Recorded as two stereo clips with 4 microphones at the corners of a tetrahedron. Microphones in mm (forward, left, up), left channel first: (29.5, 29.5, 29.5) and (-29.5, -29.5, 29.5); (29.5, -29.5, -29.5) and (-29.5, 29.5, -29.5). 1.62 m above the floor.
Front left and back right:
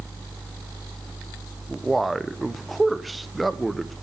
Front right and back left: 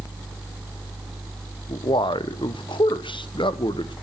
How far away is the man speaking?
About 0.9 m.